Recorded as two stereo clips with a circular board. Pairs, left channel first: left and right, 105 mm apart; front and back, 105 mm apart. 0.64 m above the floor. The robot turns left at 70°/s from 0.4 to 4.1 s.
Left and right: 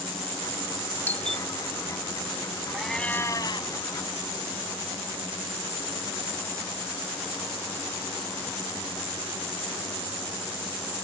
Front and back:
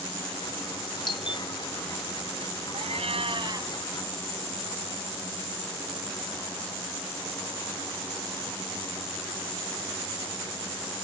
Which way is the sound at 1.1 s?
25° left.